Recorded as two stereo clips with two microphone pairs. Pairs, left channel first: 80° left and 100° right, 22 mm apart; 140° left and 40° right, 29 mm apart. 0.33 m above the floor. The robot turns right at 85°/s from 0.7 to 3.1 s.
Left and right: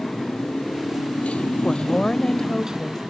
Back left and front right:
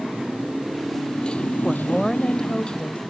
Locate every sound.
0.0 s a motorcycle: 35° left; by 3.1 s 125° right
1.6 s a woman speaking: 35° left; by 3.0 s 150° left